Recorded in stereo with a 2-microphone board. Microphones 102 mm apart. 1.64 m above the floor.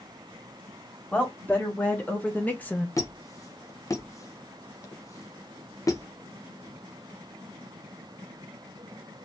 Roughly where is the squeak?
Left.